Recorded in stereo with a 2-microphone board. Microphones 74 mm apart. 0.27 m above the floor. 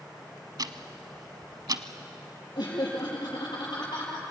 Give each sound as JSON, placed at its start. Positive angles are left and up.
{"t": 0.6, "sound": "ticking", "side_deg": -65, "distance_m": 0.9}
{"t": 2.5, "sound": "laughter", "side_deg": 75, "distance_m": 6.0}